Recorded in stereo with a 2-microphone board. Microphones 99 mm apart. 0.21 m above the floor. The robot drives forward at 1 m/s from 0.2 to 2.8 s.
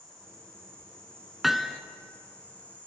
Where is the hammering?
5° right (ahead or behind), 0.5 m; by 1.8 s centre (ahead or behind), 0.9 m.